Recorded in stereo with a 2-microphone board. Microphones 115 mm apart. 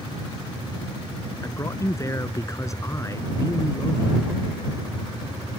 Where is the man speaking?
30° left (ahead or behind).